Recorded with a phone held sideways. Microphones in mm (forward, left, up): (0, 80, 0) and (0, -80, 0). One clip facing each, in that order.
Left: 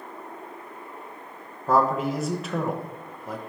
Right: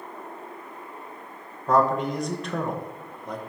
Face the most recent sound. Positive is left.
turn(degrees=5)  # may be behind; listen again after turning